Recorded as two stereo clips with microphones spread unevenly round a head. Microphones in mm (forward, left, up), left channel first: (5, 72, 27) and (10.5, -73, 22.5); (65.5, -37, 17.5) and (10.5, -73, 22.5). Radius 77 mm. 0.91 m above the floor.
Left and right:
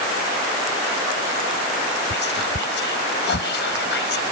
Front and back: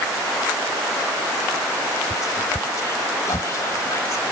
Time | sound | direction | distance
2.1 | whispering | 90° left | ?